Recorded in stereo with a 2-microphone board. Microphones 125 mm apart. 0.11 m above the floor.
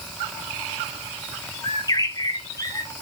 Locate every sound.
1.6 s a bird: 30° left (ahead or behind), 0.9 m